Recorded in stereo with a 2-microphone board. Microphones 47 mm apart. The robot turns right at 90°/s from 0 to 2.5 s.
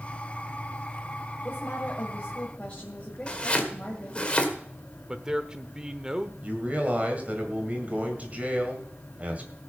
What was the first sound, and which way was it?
A woman speaking, 55° left.